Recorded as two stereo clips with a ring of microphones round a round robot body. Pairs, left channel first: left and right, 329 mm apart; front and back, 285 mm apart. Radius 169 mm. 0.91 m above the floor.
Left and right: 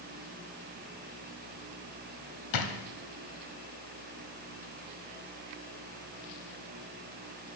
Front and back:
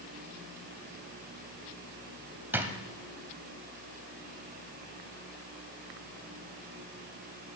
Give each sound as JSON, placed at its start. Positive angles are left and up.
{"t": 2.5, "sound": "a drawer", "azimuth_deg": 100, "distance_m": 1.1}